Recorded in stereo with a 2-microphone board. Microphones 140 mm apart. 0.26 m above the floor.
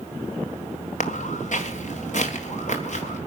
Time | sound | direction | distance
1.0 | footsteps | 60° left (ahead or behind) | 1.9 m